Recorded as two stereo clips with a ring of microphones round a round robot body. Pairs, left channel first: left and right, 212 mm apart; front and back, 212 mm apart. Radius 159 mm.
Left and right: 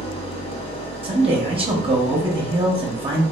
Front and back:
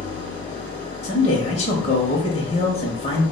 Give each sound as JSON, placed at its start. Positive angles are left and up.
{"t": 0.0, "sound": "an engine running", "azimuth_deg": 35, "distance_m": 1.3}
{"t": 1.0, "sound": "a man speaking", "azimuth_deg": -40, "distance_m": 0.9}